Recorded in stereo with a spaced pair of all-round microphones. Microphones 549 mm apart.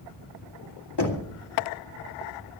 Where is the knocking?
45° left (ahead or behind), 2.5 m.